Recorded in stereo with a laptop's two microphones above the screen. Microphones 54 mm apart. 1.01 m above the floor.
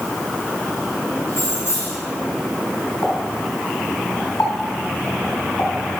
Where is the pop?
70° left (ahead or behind), 4 m.